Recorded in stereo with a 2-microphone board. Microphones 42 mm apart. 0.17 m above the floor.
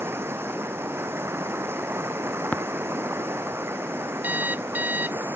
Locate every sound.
0.0 s running water: 75° right (ahead or behind)
2.5 s tapping: 35° left (ahead or behind)
4.2 s an alarm clock: 50° right (ahead or behind)